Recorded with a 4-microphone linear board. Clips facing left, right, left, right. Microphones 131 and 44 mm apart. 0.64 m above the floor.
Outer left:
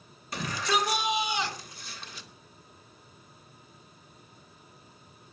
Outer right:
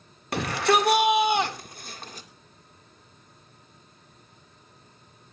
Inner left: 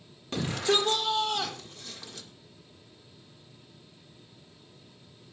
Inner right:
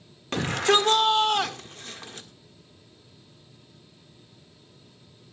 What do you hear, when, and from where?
0.3 s a shout: 65° right (ahead or behind), 1.8 m; by 2.3 s 45° right (ahead or behind), 1.6 m